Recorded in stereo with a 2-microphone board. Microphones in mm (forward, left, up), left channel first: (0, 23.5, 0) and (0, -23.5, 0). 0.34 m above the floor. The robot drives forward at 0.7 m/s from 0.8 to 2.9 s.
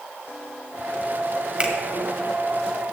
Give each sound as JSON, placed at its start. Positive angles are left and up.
{"t": 1.6, "sound": "a finger snap", "side_deg": -20, "distance_m": 1.6}